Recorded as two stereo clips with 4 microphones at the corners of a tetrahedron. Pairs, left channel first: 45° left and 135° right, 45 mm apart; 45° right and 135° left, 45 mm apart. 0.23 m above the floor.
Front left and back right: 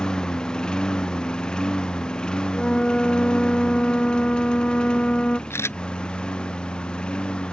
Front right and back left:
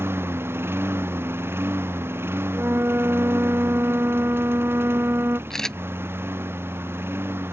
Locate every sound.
0.0 s a lawn mower: 115° left
2.5 s a flute: 115° left
5.5 s a camera shutter: 30° left